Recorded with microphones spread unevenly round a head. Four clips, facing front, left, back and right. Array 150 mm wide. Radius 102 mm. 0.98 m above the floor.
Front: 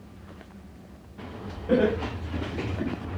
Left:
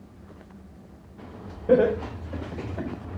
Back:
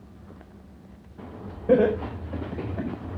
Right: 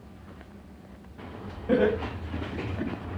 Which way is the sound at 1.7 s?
135° left.